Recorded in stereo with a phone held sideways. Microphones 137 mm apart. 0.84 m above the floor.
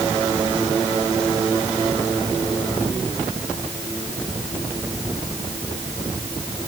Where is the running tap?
I don't hear a running tap.